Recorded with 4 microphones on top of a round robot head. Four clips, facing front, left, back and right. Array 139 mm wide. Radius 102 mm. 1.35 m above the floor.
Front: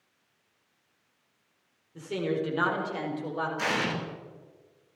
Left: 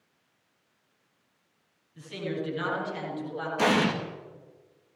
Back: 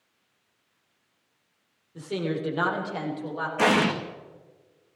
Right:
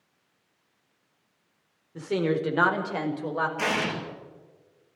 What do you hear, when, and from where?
1.9 s a woman speaking: 100° right, 4.5 m; by 3.5 s 90° right, 6 m
3.6 s an explosion: 150° left, 2.5 m